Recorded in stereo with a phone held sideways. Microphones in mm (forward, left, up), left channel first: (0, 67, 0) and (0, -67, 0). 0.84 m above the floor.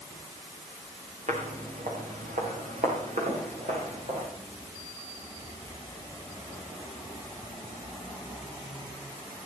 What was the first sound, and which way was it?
Footsteps, 70° right (ahead or behind).